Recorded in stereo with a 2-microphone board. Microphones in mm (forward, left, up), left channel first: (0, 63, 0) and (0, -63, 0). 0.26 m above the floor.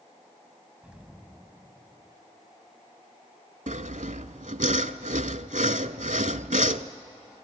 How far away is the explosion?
About 1.9 m.